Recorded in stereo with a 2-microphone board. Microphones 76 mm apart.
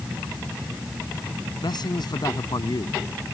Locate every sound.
1.6 s a man speaking: 70° left (ahead or behind)